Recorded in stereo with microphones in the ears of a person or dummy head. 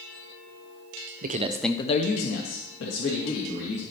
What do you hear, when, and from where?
1.2 s a man speaking: 50° right (ahead or behind), 0.9 m; by 3.8 s 80° left, 3.5 m